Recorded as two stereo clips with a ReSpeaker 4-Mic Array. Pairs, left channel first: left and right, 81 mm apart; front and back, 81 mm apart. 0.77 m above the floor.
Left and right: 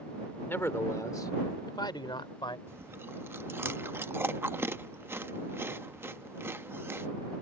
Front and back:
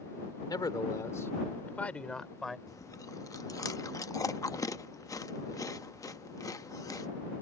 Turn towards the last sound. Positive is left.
turn(degrees=-35)